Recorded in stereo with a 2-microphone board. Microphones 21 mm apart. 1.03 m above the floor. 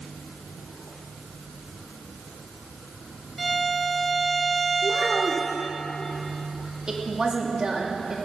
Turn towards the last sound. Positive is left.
turn(degrees=-35)  # may be behind; listen again after turning